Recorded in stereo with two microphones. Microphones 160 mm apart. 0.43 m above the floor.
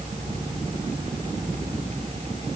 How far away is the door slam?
No door slam in this recording.